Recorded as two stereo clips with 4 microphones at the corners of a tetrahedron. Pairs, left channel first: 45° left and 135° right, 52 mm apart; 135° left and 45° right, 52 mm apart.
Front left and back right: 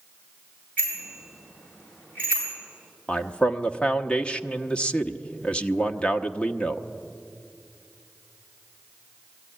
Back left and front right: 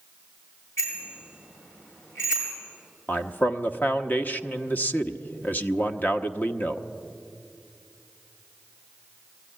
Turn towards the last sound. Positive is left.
turn(degrees=105)